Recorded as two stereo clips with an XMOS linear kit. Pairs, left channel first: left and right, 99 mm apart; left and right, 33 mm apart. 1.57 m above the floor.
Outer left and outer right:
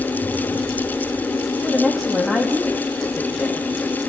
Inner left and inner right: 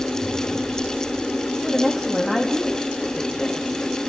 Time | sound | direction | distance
1.6 | a woman speaking | centre (ahead or behind) | 3.5 m